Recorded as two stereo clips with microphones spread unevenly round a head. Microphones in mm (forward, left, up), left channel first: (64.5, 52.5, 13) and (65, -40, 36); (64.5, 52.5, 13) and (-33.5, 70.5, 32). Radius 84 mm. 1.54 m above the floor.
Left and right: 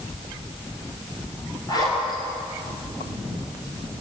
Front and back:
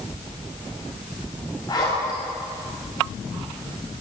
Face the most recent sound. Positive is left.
turn(degrees=40)